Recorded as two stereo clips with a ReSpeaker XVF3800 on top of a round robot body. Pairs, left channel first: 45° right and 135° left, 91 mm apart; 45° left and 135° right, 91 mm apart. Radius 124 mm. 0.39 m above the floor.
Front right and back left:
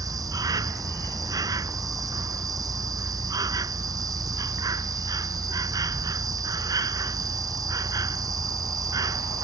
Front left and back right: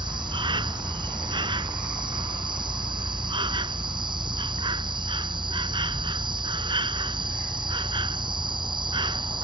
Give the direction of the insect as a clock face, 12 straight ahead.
6 o'clock.